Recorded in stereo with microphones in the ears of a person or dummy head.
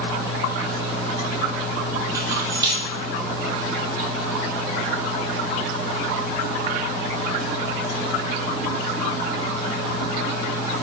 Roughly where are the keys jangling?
Centre.